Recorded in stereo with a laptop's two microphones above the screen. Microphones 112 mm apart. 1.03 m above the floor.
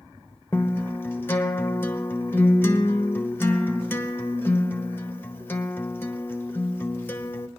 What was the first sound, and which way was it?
A guitar, 20° left (ahead or behind).